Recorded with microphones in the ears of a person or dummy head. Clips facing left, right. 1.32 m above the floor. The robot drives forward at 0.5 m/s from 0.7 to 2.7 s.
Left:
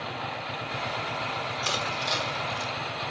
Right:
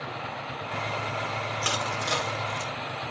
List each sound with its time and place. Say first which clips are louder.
1.6 s crushing: right 1 dB; 75° right (ahead or behind), 4 m; by 2.7 s 70° right (ahead or behind), 4 m